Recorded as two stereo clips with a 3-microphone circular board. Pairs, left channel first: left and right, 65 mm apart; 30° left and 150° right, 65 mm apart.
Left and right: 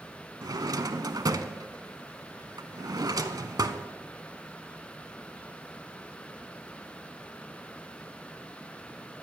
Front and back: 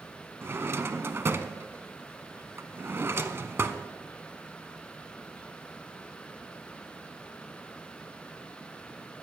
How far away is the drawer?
About 0.6 m.